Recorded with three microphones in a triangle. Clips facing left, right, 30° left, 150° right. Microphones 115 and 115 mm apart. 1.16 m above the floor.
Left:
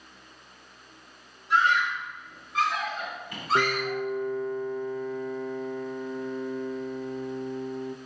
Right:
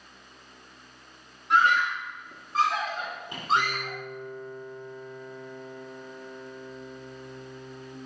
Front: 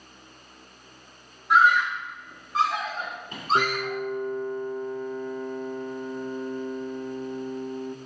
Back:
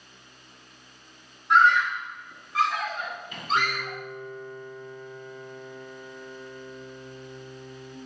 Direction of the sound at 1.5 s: 60° right.